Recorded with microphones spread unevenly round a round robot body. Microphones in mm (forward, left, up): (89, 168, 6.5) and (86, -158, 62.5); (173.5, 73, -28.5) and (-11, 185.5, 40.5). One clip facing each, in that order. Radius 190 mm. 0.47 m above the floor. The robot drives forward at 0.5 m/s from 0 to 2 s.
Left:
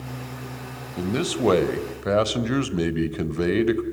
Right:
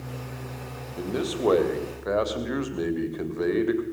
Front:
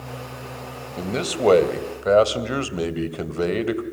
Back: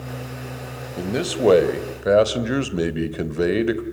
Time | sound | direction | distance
1.0 | a man speaking | 60° left | 3 m